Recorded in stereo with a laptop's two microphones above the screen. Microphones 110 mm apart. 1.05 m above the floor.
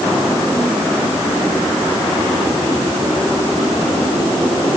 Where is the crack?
I don't hear a crack.